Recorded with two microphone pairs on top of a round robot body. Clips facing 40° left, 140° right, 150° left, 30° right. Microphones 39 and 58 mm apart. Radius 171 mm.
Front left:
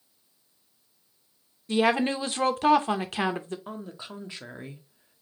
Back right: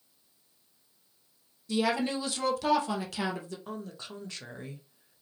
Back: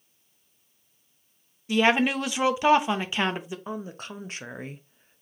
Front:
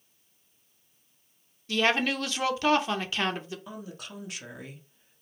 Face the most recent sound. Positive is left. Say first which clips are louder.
# front left 1 dB, back 6 dB
turn(degrees=115)